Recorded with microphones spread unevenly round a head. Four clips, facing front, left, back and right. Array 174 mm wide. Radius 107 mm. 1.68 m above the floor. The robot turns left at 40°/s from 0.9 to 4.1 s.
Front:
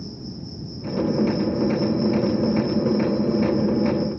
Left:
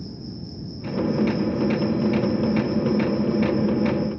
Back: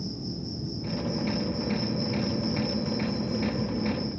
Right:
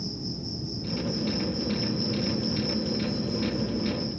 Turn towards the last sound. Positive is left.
turn(degrees=-100)